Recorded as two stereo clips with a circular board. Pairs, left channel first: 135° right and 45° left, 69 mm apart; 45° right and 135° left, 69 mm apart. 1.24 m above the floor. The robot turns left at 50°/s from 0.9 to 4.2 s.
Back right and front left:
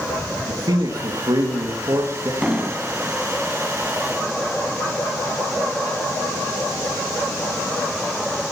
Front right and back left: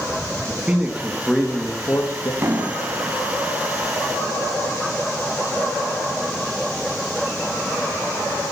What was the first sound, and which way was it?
A man speaking, 60° left.